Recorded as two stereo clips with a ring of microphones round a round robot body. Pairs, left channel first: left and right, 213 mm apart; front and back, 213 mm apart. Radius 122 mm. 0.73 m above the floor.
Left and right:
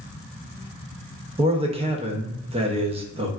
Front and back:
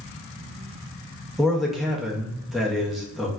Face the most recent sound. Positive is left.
turn(degrees=-90)